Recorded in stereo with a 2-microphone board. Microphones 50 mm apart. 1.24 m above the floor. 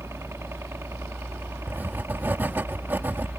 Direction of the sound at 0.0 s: 65° right (ahead or behind).